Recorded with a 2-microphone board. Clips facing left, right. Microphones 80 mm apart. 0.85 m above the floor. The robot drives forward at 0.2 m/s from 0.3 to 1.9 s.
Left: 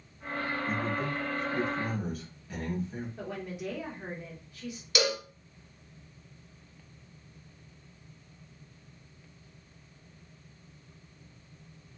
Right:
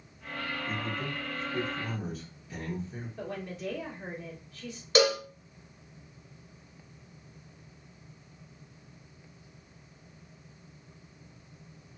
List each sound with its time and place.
0.7 s a man speaking: 55° left (ahead or behind), 1.3 m; by 3.1 s 50° left (ahead or behind), 1.3 m
3.2 s a woman speaking: 10° left (ahead or behind), 1.1 m
5.0 s a cowbell: 40° right (ahead or behind), 0.7 m